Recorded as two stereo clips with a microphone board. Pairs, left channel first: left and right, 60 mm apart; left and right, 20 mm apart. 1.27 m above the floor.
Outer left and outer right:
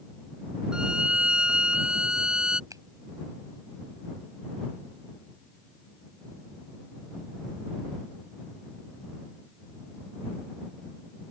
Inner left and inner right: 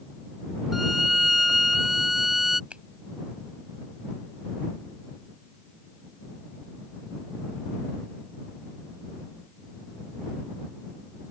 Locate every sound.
0.7 s a violin: 15° right (ahead or behind)
2.7 s a finger snap: 75° right (ahead or behind)